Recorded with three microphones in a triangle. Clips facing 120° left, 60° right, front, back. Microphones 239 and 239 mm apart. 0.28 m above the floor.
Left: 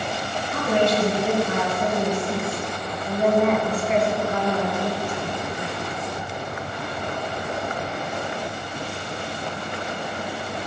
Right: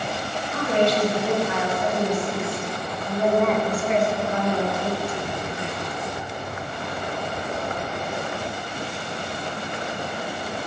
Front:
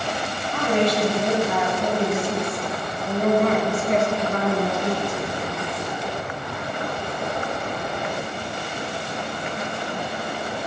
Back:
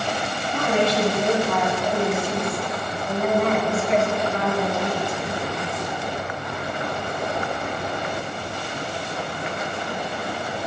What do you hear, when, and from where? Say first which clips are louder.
0.5 s a woman speaking: even, front 1 dB; 105° left, 1.8 m; by 5.2 s 20° left, 3 m